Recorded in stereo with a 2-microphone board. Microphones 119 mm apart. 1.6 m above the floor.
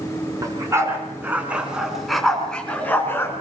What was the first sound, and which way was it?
A dog barking, 30° right (ahead or behind).